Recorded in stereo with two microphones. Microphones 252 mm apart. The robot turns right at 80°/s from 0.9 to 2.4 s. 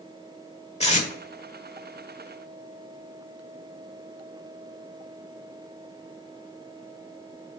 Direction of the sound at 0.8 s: 25° left (ahead or behind).